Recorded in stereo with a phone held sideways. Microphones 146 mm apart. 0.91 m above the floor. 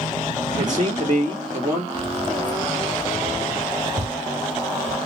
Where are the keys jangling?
35° right (ahead or behind), 1.1 m.